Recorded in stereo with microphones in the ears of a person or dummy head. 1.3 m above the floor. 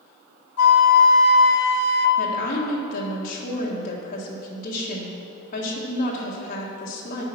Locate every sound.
0.6 s a flute: 90° left, 1.1 m
2.2 s a woman speaking: 35° left (ahead or behind), 1.6 m